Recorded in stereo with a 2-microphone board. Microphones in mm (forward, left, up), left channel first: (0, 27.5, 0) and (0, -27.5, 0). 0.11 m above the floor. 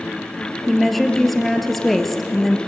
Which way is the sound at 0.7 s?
5° left (ahead or behind).